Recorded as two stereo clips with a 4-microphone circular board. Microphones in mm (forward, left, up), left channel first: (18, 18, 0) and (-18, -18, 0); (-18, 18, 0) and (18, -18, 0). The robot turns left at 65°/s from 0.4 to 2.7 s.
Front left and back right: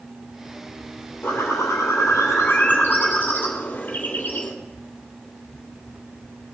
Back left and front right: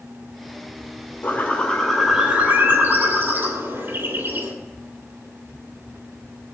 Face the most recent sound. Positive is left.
turn(degrees=-5)